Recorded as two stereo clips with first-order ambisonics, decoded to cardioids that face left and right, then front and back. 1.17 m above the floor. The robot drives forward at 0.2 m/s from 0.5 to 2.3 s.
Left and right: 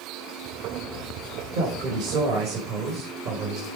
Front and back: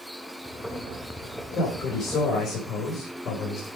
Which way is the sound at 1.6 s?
70° right.